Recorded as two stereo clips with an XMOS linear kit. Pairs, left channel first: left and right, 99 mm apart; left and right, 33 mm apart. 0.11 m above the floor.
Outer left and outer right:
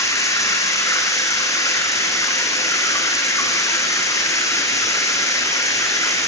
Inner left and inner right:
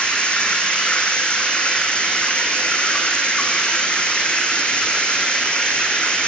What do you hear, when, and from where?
0.0 s running water: 35° left (ahead or behind), 5 m